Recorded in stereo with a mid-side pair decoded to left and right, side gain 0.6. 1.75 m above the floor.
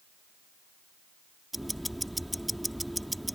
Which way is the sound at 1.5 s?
5° right.